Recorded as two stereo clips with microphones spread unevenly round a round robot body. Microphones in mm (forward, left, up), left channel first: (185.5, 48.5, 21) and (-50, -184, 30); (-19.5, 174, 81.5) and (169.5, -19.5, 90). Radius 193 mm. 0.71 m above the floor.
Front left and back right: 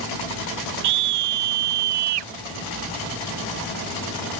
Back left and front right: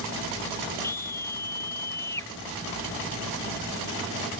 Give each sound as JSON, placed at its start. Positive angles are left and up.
{"t": 0.8, "sound": "a scream", "azimuth_deg": -145}